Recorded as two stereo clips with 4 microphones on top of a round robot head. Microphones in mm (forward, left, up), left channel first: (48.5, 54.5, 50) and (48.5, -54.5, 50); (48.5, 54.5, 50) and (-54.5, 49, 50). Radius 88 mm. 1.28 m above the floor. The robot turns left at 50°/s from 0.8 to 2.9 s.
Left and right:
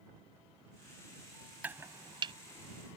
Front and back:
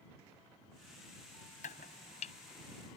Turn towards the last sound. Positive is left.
turn(degrees=-80)